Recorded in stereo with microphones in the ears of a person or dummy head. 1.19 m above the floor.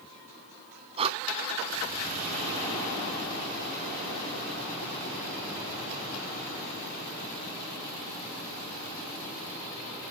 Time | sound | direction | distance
1.0 | breathing | 30° right (ahead or behind) | 0.7 m